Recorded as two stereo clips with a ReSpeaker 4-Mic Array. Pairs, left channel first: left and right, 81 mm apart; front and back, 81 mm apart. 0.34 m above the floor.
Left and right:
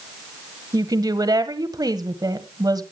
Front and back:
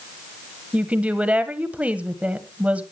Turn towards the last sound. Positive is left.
turn(degrees=-110)